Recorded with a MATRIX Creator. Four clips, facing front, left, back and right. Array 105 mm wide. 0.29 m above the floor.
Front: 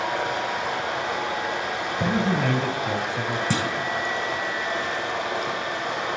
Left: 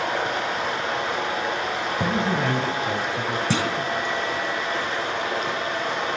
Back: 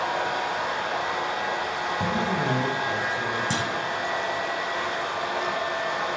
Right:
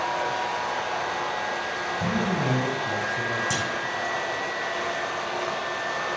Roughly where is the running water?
Left.